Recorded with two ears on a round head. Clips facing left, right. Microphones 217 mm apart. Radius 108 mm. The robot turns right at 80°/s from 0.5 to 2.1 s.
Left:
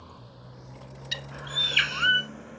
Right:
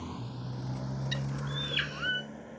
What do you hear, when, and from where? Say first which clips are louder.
0.0 s a motorcycle: right 9 dB; 70° right (ahead or behind); by 2.6 s 5° left (ahead or behind)
1.1 s a bird: right 5 dB; 20° left; by 2.3 s 95° left